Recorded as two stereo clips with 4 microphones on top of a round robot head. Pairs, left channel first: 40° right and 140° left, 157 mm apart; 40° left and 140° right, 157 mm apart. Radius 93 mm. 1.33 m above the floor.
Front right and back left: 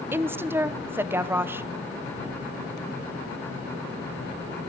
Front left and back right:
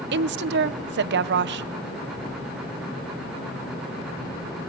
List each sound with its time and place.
0.1 s a woman speaking: 140° right, 0.7 m